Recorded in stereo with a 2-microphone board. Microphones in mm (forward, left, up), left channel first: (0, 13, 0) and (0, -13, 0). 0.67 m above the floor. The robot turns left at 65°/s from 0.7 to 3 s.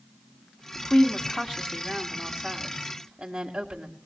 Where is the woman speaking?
95° left, 1.2 m; by 4.0 s 55° right, 1.2 m.